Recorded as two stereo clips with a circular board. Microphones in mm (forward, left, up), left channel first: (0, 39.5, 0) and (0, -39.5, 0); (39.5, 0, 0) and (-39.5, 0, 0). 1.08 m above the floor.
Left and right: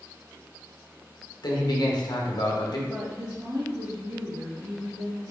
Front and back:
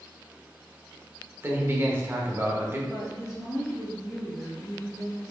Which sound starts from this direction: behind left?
A man speaking, at 1.4 s.